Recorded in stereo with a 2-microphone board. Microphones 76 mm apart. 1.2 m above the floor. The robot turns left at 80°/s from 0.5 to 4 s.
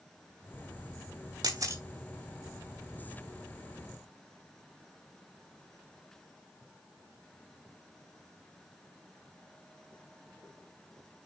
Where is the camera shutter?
60° right (ahead or behind), 2 m; by 1.8 s 35° right (ahead or behind), 2 m.